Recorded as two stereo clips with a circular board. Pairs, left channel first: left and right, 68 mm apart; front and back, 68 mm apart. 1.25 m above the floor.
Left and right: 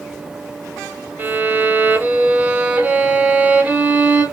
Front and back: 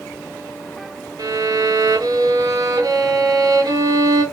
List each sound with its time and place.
1.2 s a violin: 160° right, 0.6 m